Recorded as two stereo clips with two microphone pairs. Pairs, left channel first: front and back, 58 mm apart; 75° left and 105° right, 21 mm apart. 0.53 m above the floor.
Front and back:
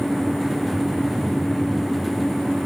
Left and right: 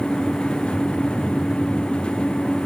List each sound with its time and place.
Only background noise.